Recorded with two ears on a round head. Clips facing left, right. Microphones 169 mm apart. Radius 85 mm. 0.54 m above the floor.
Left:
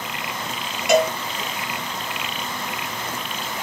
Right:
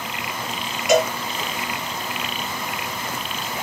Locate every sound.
0.9 s a cowbell: 45° left (ahead or behind), 1.4 m